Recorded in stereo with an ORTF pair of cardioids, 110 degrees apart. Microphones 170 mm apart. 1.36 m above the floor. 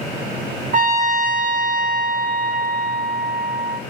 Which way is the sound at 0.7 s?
50° right.